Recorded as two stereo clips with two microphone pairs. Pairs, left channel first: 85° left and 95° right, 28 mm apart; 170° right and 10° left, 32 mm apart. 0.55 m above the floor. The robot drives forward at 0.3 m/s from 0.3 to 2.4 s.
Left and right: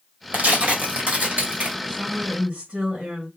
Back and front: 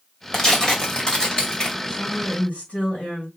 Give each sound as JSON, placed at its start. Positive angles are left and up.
{"t": 0.3, "sound": "tearing paper", "azimuth_deg": -95, "distance_m": 3.0}
{"t": 1.9, "sound": "a woman speaking", "azimuth_deg": -125, "distance_m": 4.0}